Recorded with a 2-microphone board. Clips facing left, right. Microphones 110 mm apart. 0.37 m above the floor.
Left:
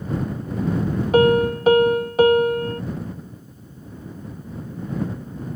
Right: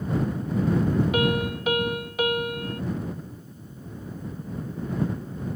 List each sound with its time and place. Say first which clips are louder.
1.1 s a piano: left 9 dB; 35° left (ahead or behind)